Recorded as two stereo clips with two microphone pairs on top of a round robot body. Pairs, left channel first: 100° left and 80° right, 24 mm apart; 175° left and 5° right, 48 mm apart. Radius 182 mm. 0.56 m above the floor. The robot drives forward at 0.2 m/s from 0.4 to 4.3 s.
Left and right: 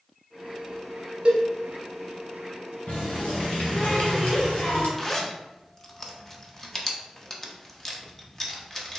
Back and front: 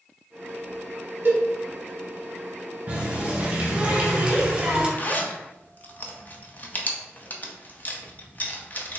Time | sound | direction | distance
1.2 | a cowbell | 45° right | 1.0 m
2.9 | a running tap | 60° left | 1.9 m
5.0 | a zipper | straight behind | 0.9 m